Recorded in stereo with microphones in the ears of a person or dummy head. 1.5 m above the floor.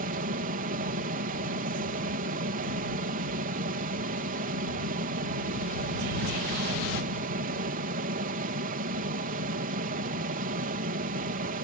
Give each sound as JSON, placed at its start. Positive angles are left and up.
{"t": 0.0, "sound": "a fan", "side_deg": -45}